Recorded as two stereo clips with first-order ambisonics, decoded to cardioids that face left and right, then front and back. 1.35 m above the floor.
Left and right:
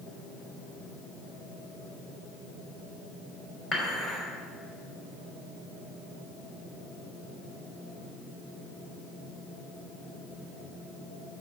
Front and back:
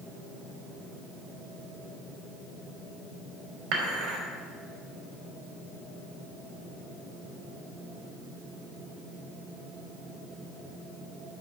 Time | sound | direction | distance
3.7 | dishes clattering | 160° left | 3 m